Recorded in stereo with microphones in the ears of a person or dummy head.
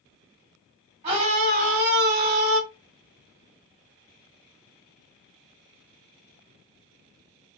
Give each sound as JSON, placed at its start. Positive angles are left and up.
{"t": 1.0, "sound": "a scream", "side_deg": -35, "distance_m": 2.0}